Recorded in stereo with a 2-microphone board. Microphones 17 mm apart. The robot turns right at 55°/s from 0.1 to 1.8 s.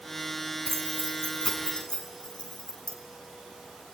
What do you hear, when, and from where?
0.7 s keys jangling: 15° left (ahead or behind), 4 m; by 3.0 s 75° left (ahead or behind), 4 m